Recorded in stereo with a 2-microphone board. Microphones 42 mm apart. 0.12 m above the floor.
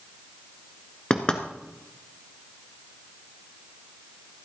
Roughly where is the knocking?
Left.